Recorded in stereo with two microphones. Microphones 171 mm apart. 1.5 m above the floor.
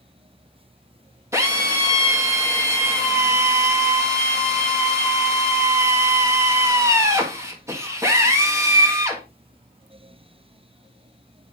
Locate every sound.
1.3 s a drill: 15° right (ahead or behind), 1.6 m